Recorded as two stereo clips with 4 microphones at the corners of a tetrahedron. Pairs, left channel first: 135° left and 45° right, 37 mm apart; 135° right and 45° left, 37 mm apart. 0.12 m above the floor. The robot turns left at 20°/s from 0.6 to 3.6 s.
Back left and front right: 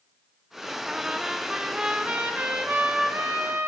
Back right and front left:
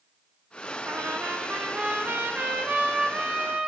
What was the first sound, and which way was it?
A trumpet, 30° left.